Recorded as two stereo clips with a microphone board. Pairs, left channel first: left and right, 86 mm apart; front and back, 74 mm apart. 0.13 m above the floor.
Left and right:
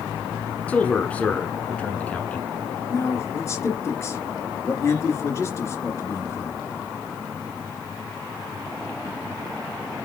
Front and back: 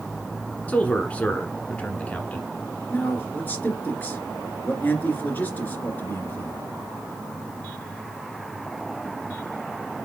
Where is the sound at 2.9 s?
55° left, 2 m.